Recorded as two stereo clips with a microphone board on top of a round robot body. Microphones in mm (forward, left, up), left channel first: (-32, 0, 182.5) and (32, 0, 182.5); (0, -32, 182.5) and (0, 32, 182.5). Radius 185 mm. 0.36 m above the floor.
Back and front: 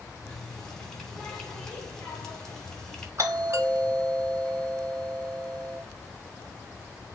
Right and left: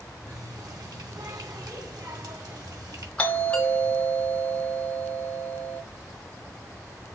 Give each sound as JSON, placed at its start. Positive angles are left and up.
{"t": 0.3, "sound": "a running tap", "azimuth_deg": 100, "distance_m": 2.0}
{"t": 3.2, "sound": "a doorbell", "azimuth_deg": -25, "distance_m": 3.0}